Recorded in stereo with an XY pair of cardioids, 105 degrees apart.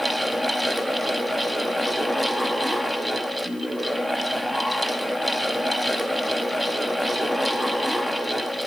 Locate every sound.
0.0 s a fan: 5° right, 1.0 m